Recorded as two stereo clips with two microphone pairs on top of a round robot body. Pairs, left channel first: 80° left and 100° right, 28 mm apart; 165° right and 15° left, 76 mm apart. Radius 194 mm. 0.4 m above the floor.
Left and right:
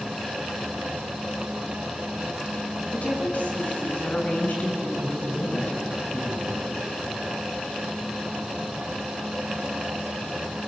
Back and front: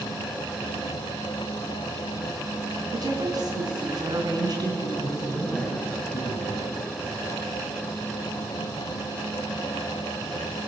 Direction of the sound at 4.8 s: 115° left.